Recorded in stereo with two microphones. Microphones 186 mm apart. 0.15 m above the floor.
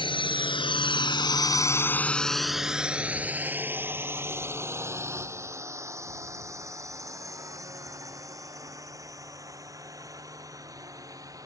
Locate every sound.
0.0 s a drone: 25° left (ahead or behind); by 11.5 s 15° right (ahead or behind)